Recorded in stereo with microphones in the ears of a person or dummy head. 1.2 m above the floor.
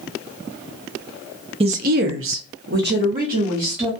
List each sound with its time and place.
1.6 s a woman speaking: 25° right (ahead or behind), 0.6 m; by 3.9 s 40° right (ahead or behind), 1.5 m